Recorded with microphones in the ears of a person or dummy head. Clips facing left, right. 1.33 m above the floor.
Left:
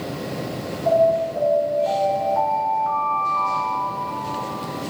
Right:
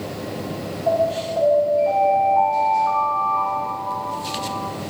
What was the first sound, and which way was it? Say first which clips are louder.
An alarm: left 3 dB; 50° left (ahead or behind).